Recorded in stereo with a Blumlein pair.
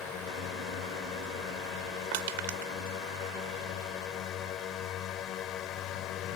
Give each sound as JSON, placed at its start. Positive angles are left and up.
{"t": 0.0, "sound": "a drone", "azimuth_deg": 30}
{"t": 2.1, "sound": "crushing", "azimuth_deg": -50}